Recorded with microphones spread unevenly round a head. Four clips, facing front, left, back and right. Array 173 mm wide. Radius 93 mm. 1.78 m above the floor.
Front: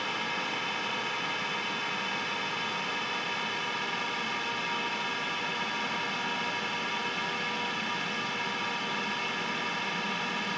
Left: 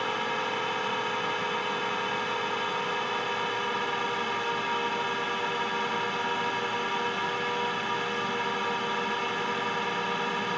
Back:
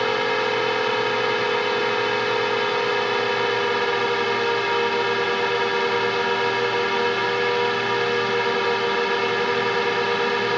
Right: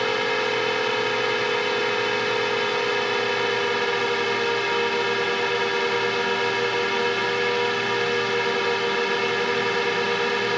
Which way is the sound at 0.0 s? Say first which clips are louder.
Right 6 dB, back 13 dB; 145° right.